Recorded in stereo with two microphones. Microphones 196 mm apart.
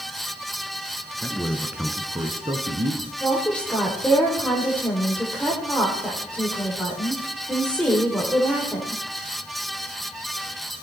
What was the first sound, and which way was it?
A man speaking, 10° left (ahead or behind).